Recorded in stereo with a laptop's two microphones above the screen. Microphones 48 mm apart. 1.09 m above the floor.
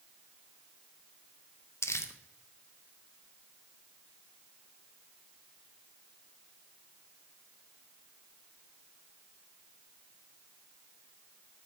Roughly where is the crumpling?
Left.